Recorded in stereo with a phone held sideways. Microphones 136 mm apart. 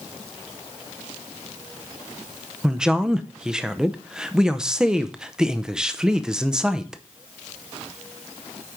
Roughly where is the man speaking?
Centre.